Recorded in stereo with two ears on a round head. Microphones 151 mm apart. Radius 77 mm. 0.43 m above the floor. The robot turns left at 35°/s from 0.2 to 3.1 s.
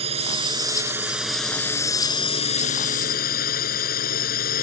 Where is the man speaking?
I don't hear a man speaking.